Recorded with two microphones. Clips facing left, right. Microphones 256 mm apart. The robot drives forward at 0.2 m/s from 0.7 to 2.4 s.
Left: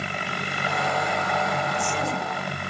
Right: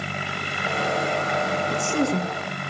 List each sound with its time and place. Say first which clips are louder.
1.7 s a woman speaking: right 6 dB; 50° right (ahead or behind), 2 m